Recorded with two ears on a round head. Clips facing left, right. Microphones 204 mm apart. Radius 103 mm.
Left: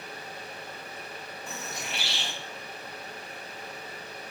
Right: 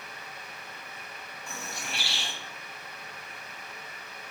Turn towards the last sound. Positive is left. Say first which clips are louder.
# left 1 dB
turn(degrees=20)  # may be behind; listen again after turning